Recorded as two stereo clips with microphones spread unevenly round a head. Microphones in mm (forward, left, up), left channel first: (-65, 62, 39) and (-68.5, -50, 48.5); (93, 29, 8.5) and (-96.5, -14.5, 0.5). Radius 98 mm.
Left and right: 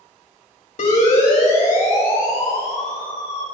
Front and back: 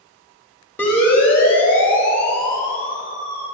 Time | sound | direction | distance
0.8 | a siren | 95° left | 4.5 m